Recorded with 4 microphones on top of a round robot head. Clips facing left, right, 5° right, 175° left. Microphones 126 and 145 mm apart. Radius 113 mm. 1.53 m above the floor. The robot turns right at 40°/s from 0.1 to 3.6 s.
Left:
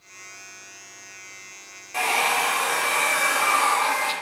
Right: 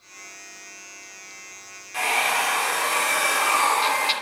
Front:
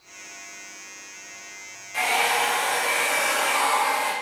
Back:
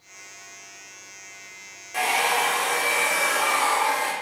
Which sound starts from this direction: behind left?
A hair dryer, at 1.9 s.